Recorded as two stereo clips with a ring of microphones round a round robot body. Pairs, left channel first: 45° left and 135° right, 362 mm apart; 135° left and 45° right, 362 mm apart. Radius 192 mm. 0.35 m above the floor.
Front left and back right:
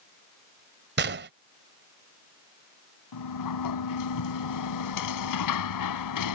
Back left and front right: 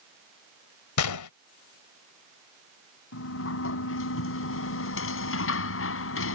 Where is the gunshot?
165° left.